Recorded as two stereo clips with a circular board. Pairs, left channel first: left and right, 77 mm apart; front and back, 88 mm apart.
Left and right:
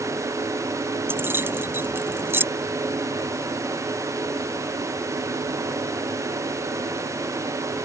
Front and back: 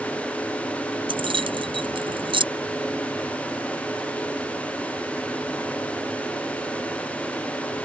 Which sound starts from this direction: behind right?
Keys jangling, at 1.1 s.